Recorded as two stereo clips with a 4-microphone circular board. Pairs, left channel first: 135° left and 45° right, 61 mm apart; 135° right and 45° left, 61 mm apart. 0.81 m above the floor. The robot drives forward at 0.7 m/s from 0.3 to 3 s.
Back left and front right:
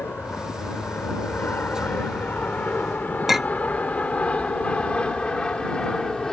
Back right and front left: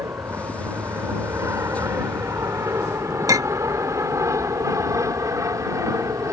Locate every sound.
0.0 s an aircraft: 80° left; by 6.3 s 55° left
3.3 s a clink: 40° left